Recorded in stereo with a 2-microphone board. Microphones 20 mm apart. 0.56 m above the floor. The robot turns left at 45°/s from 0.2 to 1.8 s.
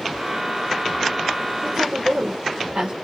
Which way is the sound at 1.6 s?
60° right (ahead or behind).